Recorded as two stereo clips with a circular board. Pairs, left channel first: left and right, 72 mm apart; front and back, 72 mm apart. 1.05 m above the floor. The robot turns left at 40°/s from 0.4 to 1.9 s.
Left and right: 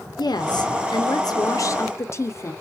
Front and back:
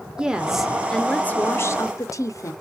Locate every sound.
0.2 s a woman speaking: 100° left, 0.6 m; by 2.5 s 40° left, 0.6 m